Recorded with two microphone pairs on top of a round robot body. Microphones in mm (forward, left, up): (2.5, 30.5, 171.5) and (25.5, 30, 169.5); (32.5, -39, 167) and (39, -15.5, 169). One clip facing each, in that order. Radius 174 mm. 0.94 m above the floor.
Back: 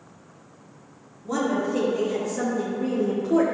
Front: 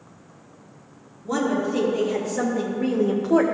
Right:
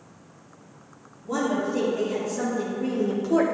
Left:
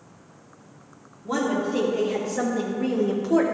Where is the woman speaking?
80° left, 2.5 m; by 3.5 s 20° right, 0.9 m.